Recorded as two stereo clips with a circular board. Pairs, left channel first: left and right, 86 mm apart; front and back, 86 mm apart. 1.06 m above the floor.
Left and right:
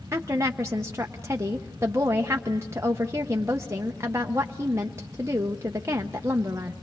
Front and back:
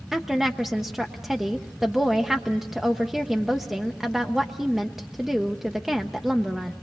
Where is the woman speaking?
100° right, 0.6 m.